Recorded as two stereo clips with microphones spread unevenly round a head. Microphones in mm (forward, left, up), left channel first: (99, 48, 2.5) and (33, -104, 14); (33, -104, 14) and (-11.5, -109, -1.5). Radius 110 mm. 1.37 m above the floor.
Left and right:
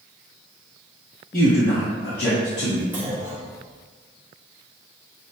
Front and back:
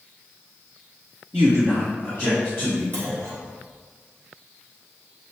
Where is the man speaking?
120° left, 0.8 m; by 2.8 s 45° left, 1.7 m.